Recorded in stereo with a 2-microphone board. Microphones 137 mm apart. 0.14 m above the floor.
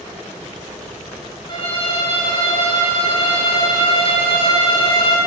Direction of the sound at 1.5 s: 35° left (ahead or behind).